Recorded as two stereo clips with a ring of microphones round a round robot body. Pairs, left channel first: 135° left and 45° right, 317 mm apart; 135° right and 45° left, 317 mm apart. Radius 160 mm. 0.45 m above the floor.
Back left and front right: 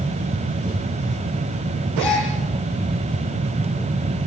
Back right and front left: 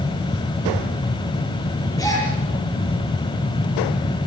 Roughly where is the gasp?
Behind left.